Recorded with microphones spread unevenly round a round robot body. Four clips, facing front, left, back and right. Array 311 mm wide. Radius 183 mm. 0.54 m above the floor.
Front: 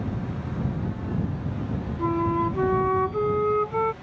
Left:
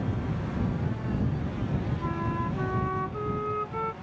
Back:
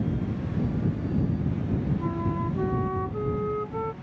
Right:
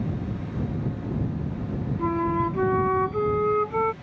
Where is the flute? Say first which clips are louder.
Right 12 dB, front 6 dB; 25° right.